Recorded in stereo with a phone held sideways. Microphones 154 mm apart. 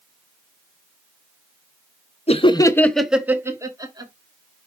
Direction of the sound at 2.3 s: 45° left (ahead or behind).